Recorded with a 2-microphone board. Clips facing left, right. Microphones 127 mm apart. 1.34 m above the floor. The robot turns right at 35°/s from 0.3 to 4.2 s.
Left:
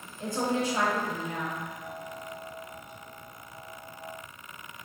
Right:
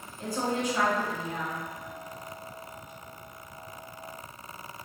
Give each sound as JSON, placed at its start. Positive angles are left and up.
{"t": 0.2, "sound": "a woman speaking", "azimuth_deg": 20, "distance_m": 1.1}